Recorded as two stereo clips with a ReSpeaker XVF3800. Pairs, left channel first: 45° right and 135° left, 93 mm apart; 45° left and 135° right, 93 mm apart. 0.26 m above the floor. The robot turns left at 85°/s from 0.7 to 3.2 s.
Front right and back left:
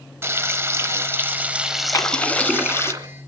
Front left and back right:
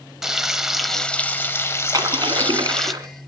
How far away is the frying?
About 1.0 m.